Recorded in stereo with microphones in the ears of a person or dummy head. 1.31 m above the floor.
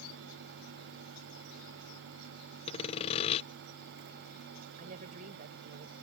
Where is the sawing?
30° left (ahead or behind).